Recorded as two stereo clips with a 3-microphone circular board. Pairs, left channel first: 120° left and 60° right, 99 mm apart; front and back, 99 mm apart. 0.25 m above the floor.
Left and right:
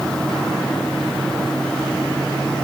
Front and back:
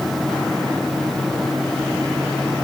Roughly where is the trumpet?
I don't hear a trumpet.